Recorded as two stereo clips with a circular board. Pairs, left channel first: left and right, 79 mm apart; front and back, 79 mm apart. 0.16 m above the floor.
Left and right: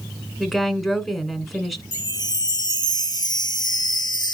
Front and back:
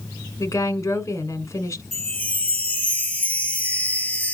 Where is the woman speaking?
Straight ahead, 1.4 m.